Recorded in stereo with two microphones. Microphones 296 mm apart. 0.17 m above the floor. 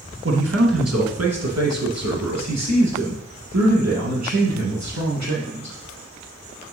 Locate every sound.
0.2 s a man speaking: 45° right (ahead or behind), 1.4 m; by 5.8 s 70° right (ahead or behind), 4.5 m